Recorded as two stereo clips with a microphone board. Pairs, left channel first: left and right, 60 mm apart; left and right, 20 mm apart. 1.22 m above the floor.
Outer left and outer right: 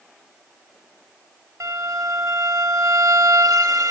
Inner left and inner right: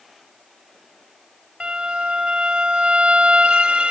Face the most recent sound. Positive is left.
turn(degrees=-65)  # may be behind; listen again after turning